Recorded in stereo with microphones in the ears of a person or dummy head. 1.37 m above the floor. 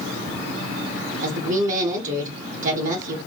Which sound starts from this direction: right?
A woman speaking, at 1.2 s.